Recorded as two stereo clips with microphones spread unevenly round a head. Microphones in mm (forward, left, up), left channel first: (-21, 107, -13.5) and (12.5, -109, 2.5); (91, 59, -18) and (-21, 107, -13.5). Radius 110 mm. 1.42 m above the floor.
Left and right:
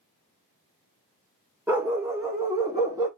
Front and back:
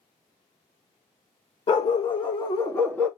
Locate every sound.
1.7 s a dog barking: 5° right, 1.2 m; by 3.1 s 90° right, 0.8 m